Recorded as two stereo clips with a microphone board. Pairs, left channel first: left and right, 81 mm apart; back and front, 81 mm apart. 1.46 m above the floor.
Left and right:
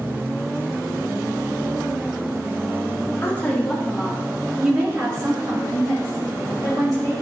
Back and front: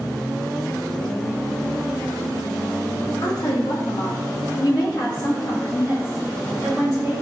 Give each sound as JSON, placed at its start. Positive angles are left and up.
{"t": 3.2, "sound": "a woman speaking", "azimuth_deg": 145, "distance_m": 0.9}